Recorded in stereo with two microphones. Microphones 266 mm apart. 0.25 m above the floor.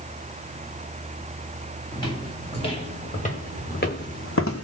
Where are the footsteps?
15° left (ahead or behind), 2.5 m; by 4.6 s 65° left (ahead or behind), 0.8 m.